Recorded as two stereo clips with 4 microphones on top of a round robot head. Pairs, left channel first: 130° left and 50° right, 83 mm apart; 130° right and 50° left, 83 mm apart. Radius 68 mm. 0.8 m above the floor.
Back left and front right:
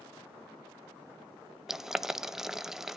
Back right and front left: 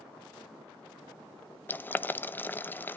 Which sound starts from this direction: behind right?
Boiling, at 1.7 s.